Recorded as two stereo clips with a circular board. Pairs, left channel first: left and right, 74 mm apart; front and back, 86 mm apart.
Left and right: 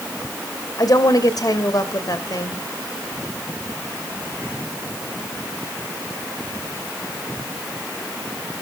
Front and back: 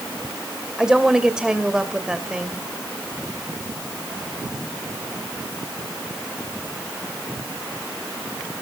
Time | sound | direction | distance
0.8 | a woman speaking | 100° left | 2 m